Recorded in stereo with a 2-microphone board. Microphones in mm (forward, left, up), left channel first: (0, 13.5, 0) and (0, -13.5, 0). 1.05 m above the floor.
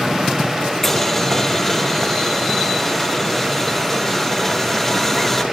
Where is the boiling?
5° left (ahead or behind), 1.1 m.